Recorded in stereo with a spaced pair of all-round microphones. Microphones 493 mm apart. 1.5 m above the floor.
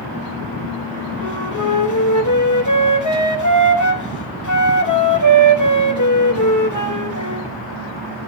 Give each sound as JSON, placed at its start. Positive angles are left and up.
{"t": 1.2, "sound": "a flute", "side_deg": 40, "distance_m": 1.0}